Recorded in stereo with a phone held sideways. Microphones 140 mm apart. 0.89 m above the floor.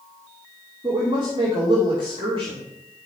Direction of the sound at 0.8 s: 35° right (ahead or behind).